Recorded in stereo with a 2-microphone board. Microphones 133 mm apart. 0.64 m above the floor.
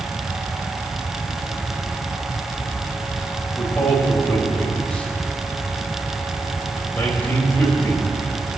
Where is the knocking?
No knocking in this recording.